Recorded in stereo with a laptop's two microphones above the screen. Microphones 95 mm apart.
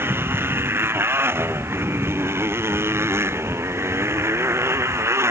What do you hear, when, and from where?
0.0 s a motorcycle: 25° right (ahead or behind); by 5.3 s 30° right (ahead or behind)